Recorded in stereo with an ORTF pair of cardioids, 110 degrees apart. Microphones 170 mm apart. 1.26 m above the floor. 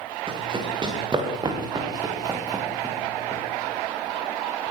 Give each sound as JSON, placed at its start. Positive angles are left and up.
{"t": 0.3, "sound": "running footsteps", "azimuth_deg": -30, "distance_m": 8.0}